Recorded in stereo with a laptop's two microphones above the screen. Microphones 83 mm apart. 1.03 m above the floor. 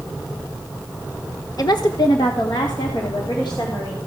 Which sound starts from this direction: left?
A woman speaking, at 1.6 s.